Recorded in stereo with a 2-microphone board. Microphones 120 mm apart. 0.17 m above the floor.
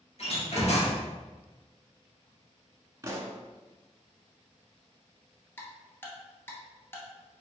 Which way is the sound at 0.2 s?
60° left (ahead or behind).